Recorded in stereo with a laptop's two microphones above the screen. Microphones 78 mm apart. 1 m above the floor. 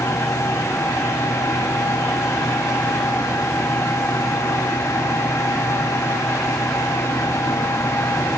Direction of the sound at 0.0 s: 45° left (ahead or behind).